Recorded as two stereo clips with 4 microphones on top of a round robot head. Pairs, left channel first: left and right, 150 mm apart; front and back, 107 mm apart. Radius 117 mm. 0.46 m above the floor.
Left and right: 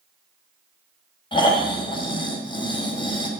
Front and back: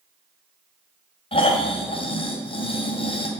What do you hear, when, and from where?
1.3 s snoring: 35° left, 2.5 m